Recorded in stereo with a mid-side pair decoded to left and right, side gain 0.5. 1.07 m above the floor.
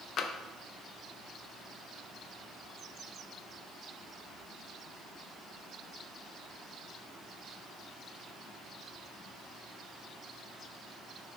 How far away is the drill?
I don't hear a drill.